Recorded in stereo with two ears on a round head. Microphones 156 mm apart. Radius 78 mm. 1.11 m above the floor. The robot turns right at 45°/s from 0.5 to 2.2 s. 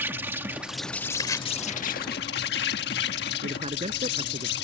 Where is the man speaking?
35° right (ahead or behind).